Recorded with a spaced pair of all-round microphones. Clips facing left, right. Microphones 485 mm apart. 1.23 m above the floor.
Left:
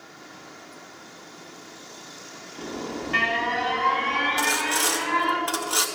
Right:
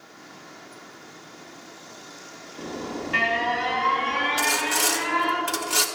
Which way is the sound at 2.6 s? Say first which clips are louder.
Even; centre (ahead or behind).